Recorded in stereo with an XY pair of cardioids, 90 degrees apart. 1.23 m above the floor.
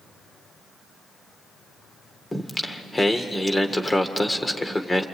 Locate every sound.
2.3 s singing: 15° left, 1.8 m